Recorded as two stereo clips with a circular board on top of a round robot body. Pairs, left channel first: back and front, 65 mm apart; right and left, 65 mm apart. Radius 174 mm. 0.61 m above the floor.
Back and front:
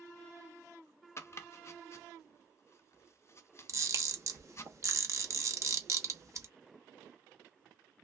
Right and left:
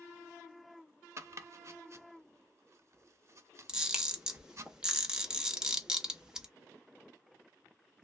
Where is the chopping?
130° left, 0.7 m.